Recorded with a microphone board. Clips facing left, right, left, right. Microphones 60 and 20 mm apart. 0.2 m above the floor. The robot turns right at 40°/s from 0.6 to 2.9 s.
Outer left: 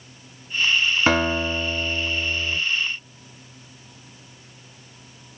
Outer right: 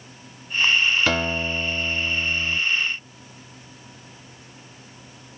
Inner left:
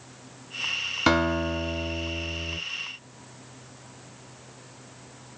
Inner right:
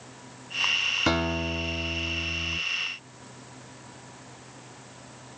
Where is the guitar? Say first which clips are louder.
Outer left 3 dB, inner left 3 dB; 40° left, 1.5 m; by 2.6 s 100° left, 1.5 m.